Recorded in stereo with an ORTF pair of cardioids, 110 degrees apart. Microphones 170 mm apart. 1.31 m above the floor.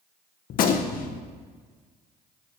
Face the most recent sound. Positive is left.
turn(degrees=60)